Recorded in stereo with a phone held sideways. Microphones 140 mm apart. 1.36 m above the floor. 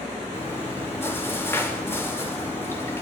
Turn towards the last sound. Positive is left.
turn(degrees=15)  # may be behind; listen again after turning